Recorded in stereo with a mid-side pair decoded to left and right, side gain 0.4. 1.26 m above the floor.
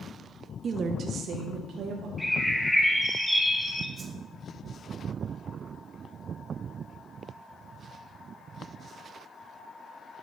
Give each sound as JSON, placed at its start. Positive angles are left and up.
{"t": 0.6, "sound": "a woman speaking", "azimuth_deg": -50, "distance_m": 0.6}
{"t": 2.2, "sound": "a bird", "azimuth_deg": 10, "distance_m": 1.9}
{"t": 4.0, "sound": "a whoosh", "azimuth_deg": -40, "distance_m": 1.4}